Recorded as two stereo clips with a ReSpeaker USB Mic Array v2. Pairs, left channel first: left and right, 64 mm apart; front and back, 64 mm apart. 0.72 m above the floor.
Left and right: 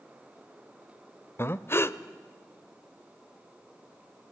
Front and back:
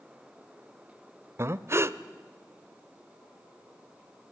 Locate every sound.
1.4 s breathing: 140° left, 0.8 m